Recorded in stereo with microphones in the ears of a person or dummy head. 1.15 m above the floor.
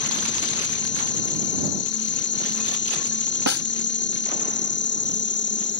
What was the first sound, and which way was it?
An insect, 55° left (ahead or behind).